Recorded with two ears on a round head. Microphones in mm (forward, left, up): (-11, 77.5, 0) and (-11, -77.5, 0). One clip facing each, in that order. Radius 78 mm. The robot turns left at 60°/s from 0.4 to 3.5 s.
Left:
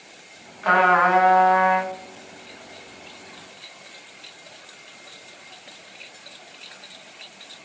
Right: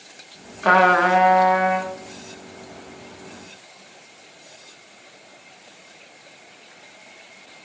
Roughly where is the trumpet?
Right.